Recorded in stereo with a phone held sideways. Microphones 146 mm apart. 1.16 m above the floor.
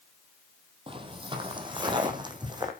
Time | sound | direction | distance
0.9 | footsteps | 40° right (ahead or behind) | 1.8 m